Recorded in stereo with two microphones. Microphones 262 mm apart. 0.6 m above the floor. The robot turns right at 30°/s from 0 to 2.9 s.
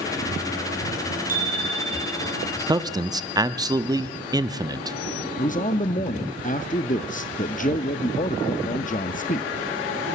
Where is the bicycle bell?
145° right, 3 m; by 2.4 s 115° right, 3 m.